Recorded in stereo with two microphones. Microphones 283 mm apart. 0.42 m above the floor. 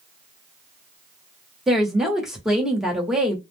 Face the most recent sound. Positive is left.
turn(degrees=0)  # may be behind; listen again after turning